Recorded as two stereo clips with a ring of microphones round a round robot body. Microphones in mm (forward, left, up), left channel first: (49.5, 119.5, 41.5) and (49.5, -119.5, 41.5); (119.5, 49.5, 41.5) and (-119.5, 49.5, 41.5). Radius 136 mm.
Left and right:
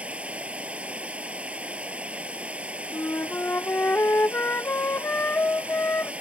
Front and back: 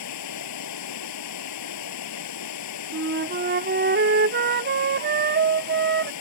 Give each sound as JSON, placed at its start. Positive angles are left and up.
{"t": 0.0, "sound": "running water", "azimuth_deg": -5}
{"t": 2.9, "sound": "a flute", "azimuth_deg": 170}